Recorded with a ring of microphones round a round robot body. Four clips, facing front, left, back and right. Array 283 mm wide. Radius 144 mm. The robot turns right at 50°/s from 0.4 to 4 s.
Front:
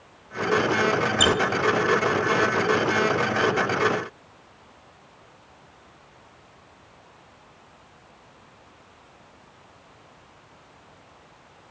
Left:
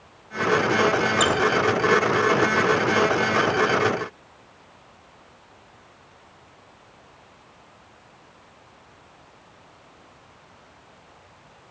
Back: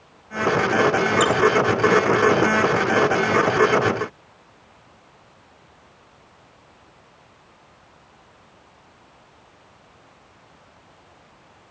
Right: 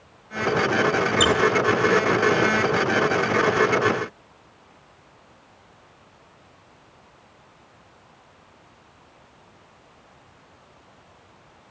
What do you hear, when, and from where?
1.2 s a squeak: 45° right, 0.8 m; by 1.3 s 40° right, 0.8 m